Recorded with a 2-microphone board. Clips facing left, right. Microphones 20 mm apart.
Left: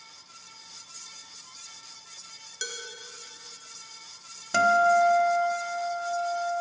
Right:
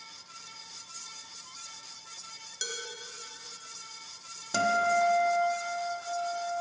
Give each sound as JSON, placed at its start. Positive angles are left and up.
{"t": 2.6, "sound": "dishes clattering", "side_deg": 15, "distance_m": 1.4}
{"t": 4.5, "sound": "a guitar", "side_deg": 35, "distance_m": 1.0}